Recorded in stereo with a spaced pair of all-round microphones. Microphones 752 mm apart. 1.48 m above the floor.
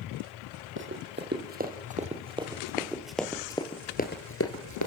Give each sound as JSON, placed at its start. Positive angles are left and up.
{"t": 0.8, "sound": "running footsteps", "side_deg": -15, "distance_m": 3.5}